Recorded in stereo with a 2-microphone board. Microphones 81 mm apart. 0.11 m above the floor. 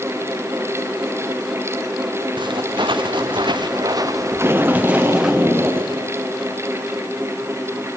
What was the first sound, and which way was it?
Footsteps, 75° right (ahead or behind).